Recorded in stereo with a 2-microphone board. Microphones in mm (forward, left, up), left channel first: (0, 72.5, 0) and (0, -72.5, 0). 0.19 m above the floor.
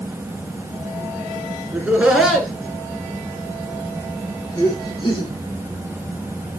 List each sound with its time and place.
1.7 s laughter: 10° right (ahead or behind), 2 m; by 5.3 s 35° left (ahead or behind), 3.5 m